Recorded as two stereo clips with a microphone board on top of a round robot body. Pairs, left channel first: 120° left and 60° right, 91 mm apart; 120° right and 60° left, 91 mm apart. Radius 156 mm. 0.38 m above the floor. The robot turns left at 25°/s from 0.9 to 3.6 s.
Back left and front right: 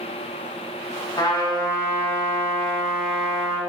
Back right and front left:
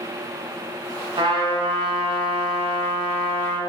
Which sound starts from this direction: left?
A trumpet, at 1.2 s.